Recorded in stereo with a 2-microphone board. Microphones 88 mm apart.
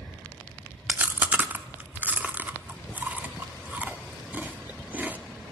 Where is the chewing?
20° right (ahead or behind), 0.7 m.